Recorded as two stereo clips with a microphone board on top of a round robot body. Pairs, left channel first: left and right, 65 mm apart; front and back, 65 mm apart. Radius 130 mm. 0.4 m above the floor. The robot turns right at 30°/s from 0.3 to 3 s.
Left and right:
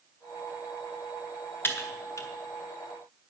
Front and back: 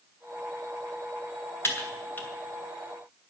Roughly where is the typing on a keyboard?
Ahead left.